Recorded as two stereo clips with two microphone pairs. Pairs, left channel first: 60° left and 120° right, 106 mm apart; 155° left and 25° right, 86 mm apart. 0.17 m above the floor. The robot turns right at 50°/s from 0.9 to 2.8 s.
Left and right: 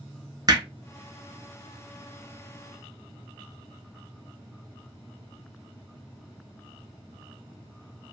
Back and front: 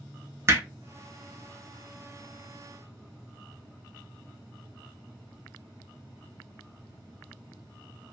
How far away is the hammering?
About 0.6 m.